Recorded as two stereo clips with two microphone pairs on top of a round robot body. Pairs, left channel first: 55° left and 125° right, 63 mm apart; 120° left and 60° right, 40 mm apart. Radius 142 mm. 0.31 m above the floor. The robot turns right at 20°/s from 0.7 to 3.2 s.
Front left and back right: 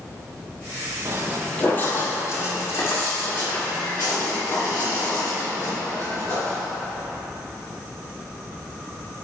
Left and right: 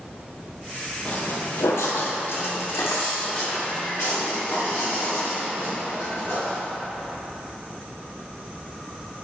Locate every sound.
1.1 s footsteps: 175° right, 0.5 m; by 6.6 s 105° left, 4.5 m